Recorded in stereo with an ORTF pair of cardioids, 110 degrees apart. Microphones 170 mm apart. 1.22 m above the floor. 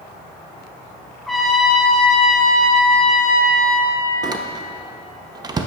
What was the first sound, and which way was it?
A trumpet, straight ahead.